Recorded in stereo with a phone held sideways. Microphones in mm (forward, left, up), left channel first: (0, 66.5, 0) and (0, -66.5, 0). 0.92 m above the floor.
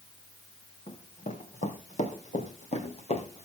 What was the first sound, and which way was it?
Running footsteps, 60° left (ahead or behind).